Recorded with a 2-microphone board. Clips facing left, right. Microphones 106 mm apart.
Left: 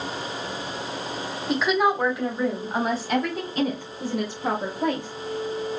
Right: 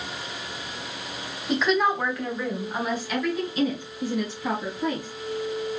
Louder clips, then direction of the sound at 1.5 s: Left 1 dB; centre (ahead or behind).